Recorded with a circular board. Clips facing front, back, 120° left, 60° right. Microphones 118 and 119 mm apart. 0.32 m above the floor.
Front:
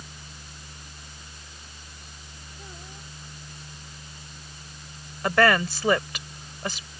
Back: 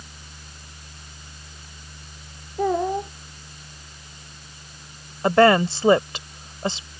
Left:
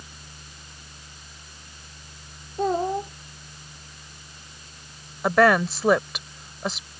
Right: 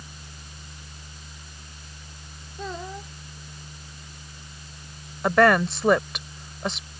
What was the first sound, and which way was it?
A child speaking, 165° left.